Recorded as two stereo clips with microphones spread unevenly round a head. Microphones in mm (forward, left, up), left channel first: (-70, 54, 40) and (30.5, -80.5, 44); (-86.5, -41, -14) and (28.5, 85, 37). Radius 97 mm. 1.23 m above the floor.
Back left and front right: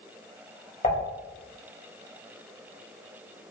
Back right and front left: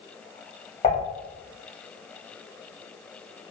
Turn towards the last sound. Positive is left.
turn(degrees=165)